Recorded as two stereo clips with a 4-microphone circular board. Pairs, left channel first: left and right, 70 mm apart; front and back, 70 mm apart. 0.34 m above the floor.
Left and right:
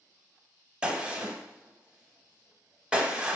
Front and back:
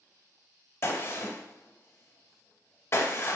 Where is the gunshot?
25° right, 0.7 m.